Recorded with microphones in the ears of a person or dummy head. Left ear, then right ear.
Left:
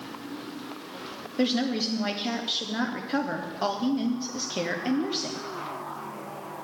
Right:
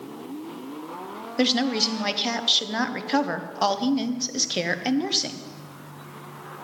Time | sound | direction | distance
1.4 | a woman speaking | 30° right (ahead or behind) | 0.8 m